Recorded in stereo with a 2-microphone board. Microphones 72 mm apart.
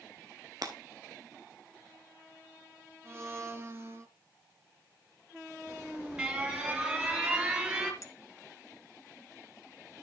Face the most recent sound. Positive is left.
turn(degrees=45)  # may be behind; listen again after turning